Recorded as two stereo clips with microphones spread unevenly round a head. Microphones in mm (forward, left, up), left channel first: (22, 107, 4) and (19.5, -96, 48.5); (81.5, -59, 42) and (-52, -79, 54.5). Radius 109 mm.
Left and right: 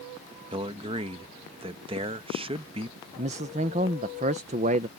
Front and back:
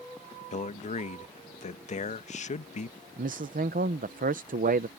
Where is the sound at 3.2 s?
150° right.